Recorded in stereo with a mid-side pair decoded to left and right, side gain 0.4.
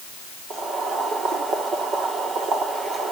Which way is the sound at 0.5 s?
65° right.